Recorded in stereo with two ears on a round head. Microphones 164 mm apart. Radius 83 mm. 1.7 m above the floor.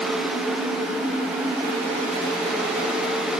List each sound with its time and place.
Only background noise.